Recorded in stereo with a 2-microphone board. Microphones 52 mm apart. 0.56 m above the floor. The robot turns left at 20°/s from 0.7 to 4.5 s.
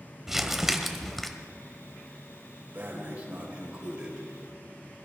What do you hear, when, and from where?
0.3 s crumpling: 10° right (ahead or behind), 1.1 m; by 1.3 s 5° left (ahead or behind), 1.1 m
2.7 s breathing: 135° right, 2.5 m; by 4.3 s 165° right, 2.5 m